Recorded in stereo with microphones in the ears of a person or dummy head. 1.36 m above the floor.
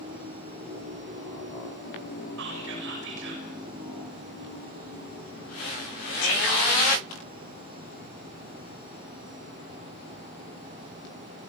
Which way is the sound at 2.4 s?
65° right (ahead or behind).